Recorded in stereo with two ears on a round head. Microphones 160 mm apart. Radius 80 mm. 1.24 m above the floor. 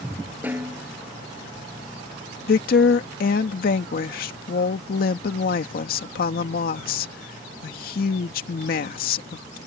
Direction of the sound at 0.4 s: 10° right (ahead or behind).